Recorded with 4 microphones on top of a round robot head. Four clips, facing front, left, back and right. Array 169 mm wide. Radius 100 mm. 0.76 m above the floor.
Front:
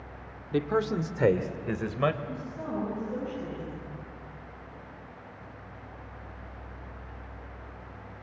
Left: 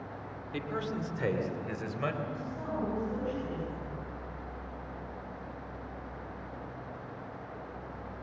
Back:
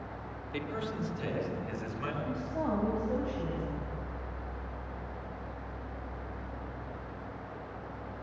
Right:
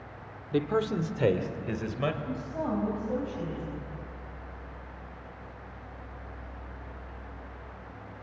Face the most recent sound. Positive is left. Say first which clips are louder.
# right 5 dB, back 3 dB
turn(degrees=-135)